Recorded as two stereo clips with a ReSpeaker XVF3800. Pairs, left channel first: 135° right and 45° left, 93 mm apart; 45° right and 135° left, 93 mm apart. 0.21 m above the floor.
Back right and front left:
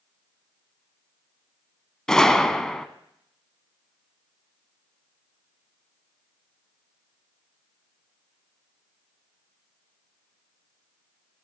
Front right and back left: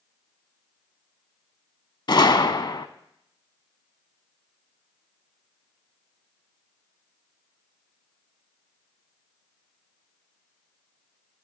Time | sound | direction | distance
2.1 | a gunshot | 55° right | 0.5 m